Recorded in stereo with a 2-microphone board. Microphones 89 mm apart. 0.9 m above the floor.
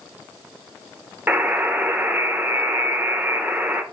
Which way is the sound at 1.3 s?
20° right (ahead or behind).